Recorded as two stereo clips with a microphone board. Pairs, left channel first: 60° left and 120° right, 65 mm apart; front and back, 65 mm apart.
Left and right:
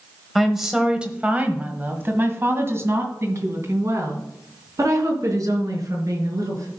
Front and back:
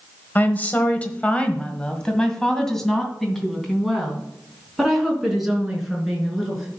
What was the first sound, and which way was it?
A woman speaking, 30° right.